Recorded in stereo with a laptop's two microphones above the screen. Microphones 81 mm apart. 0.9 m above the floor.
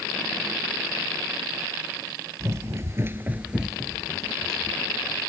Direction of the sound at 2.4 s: 35° right (ahead or behind).